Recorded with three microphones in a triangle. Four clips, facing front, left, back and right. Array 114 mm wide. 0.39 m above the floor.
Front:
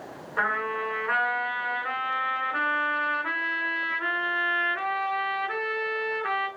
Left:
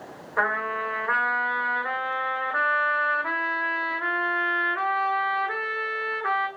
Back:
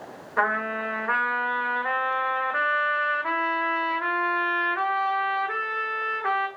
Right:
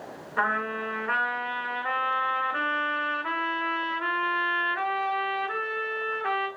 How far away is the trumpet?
About 1.1 m.